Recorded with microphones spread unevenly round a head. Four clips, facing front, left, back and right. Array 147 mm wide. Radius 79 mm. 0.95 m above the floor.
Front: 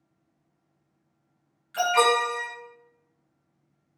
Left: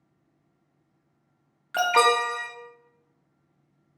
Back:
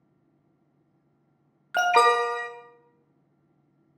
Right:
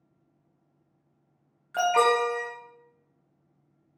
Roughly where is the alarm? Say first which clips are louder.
Left 1 dB, back 2 dB; behind left.